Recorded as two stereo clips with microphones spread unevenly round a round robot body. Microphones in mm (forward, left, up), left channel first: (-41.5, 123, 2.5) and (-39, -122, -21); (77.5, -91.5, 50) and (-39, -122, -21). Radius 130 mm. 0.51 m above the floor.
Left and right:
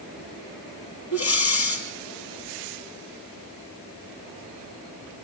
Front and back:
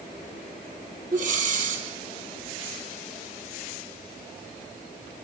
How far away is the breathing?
About 6.5 m.